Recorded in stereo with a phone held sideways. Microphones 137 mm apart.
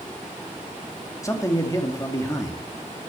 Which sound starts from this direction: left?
A man speaking, at 1.2 s.